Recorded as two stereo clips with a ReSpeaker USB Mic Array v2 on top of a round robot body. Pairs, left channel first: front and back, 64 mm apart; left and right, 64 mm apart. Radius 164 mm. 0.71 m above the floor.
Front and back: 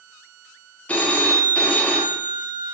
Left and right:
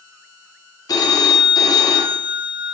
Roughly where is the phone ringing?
Left.